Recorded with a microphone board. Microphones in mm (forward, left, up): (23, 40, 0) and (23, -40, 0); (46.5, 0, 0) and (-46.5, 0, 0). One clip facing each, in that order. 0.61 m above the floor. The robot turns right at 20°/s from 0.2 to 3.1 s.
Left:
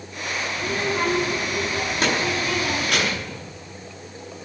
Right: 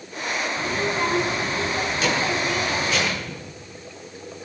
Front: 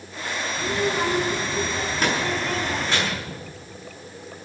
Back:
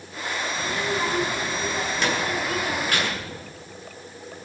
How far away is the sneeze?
I don't hear a sneeze.